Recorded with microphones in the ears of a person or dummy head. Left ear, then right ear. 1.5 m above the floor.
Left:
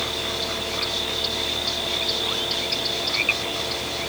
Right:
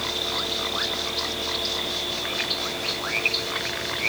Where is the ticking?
I don't hear ticking.